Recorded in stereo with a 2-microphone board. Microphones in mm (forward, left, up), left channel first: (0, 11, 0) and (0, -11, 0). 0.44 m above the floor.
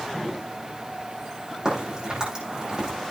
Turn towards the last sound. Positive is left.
turn(degrees=-30)  # may be behind; listen again after turning